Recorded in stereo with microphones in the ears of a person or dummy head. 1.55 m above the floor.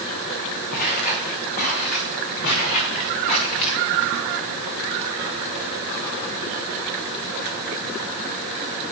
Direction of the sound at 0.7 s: 45° left (ahead or behind).